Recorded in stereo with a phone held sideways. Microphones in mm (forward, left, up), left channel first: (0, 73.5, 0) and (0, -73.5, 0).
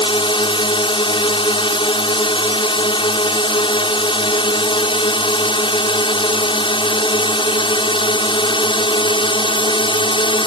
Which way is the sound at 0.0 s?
35° left (ahead or behind).